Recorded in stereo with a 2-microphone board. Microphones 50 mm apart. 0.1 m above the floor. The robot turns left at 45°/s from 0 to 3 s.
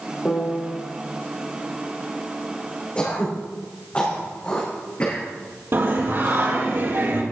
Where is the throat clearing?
30° left (ahead or behind), 5.5 m.